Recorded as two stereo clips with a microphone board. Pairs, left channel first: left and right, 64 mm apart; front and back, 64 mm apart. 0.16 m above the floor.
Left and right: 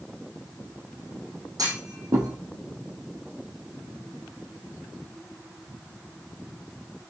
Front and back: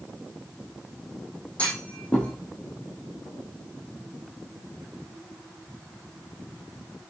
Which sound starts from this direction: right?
A clunk, at 1.6 s.